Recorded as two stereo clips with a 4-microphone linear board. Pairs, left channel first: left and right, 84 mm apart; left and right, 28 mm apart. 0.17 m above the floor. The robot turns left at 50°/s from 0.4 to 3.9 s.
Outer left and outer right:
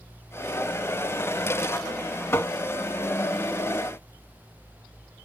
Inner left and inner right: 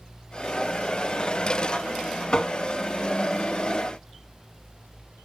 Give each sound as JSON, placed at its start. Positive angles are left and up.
{"t": 2.3, "sound": "tapping", "side_deg": 30, "distance_m": 0.7}